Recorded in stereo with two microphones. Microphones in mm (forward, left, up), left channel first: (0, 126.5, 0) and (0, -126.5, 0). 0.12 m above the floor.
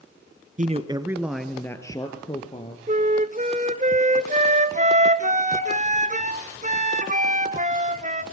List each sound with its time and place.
0.6 s a man speaking: 30° right (ahead or behind), 1.4 m; by 2.8 s 25° left (ahead or behind), 3 m
2.9 s a flute: 30° right (ahead or behind), 1.0 m